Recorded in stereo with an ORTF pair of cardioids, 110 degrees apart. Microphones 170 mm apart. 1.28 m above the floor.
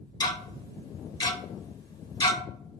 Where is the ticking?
25° left, 0.7 m.